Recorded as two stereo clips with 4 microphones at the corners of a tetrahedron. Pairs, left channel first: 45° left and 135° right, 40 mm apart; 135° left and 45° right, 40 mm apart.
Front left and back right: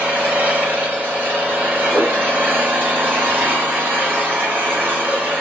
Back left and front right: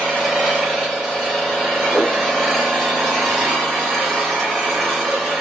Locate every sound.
0.0 s an engine running: 130° right, 1.6 m
1.9 s a whoosh: 155° right, 0.7 m